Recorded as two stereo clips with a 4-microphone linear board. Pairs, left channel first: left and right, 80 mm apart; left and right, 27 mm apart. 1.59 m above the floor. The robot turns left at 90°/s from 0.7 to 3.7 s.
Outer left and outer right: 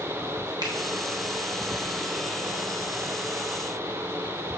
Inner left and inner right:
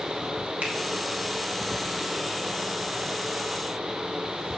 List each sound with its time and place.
0.6 s a finger snap: 60° right (ahead or behind), 1.2 m; by 0.8 s 65° right (ahead or behind), 1.2 m